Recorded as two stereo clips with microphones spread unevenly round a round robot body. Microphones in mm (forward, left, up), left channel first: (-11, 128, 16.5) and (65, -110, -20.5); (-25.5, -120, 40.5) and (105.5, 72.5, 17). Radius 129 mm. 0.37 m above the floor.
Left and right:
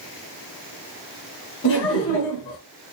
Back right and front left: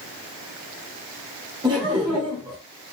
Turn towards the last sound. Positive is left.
turn(degrees=110)